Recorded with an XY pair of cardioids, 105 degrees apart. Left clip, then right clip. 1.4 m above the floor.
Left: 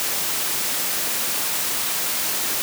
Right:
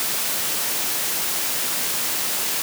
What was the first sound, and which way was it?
Only background noise.